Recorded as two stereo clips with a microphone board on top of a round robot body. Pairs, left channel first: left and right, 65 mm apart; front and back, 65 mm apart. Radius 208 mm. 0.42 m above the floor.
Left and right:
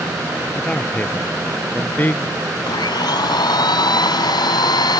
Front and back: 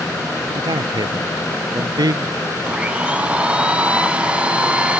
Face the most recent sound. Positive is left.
turn(degrees=105)